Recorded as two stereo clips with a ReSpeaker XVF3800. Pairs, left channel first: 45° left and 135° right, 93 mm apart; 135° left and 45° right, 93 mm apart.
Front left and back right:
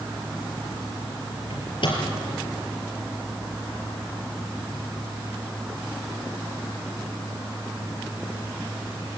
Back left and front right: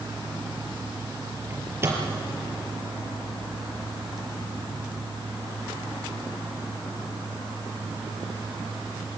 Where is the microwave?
20° left, 5 m.